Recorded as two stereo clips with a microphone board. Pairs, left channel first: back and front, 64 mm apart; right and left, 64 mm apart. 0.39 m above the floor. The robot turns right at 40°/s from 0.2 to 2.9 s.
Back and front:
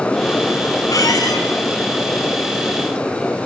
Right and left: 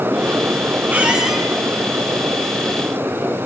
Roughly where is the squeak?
Behind.